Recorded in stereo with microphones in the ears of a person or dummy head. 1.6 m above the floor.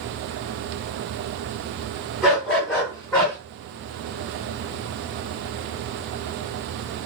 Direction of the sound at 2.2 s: Centre (ahead or behind).